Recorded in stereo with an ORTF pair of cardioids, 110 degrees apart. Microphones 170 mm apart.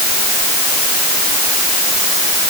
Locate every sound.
Only background noise.